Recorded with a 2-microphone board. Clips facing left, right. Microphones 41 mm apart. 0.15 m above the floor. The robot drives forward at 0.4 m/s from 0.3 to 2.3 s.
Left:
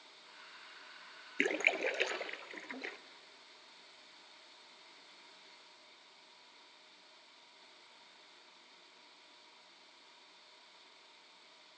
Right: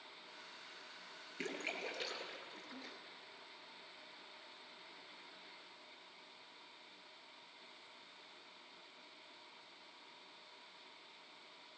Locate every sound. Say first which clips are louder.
1.4 s a splash: left 11 dB; 70° left (ahead or behind), 0.7 m; by 3.0 s 65° left (ahead or behind), 0.7 m